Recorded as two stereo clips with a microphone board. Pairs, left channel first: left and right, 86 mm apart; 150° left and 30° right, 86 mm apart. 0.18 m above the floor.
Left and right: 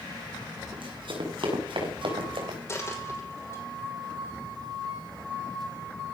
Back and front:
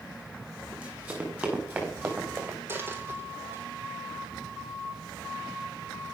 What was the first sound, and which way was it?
Running footsteps, 100° right.